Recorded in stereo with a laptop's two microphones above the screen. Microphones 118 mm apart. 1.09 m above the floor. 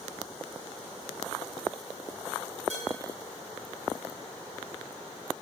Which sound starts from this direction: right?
Dishes clattering, at 2.7 s.